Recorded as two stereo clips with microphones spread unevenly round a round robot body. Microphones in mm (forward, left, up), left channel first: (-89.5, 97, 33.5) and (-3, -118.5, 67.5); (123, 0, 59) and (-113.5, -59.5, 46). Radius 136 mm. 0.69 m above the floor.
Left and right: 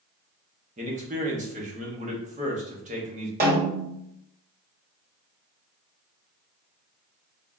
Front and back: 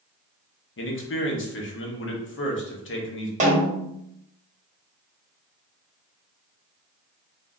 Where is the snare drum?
115° right, 1.6 m.